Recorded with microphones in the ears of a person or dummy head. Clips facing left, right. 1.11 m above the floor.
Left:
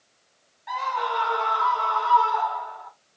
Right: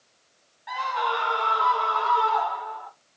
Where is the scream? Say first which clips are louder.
Even; 5° right (ahead or behind), 0.9 m; by 2.9 s 55° right (ahead or behind), 2.5 m.